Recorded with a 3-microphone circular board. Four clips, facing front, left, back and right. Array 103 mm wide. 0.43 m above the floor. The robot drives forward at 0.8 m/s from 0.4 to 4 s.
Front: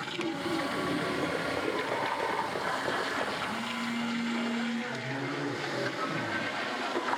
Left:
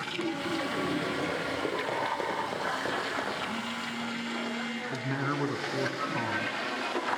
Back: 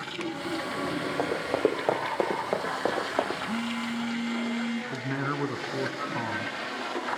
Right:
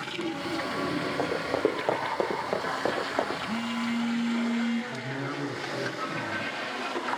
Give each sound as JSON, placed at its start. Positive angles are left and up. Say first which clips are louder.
{"t": 1.2, "sound": "running footsteps", "louder": "right 5 dB, back 5 dB", "azimuth_deg": -155, "distance_m": 8.0}
{"t": 3.5, "sound": "a phone buzzing", "louder": "right 5 dB, back 3 dB", "azimuth_deg": -150, "distance_m": 4.0}
{"t": 4.9, "sound": "a man speaking", "louder": "left 2 dB, back 4 dB", "azimuth_deg": 150, "distance_m": 4.0}